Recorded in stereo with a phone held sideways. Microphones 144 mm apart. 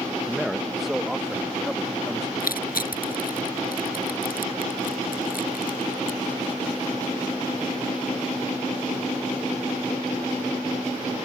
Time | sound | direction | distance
0.2 | a man speaking | 5° right (ahead or behind) | ?
2.4 | crushing | 90° left | ?